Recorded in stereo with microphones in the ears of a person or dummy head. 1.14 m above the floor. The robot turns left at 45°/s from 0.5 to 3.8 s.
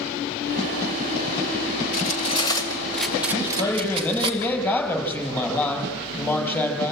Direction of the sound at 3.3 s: 35° left (ahead or behind).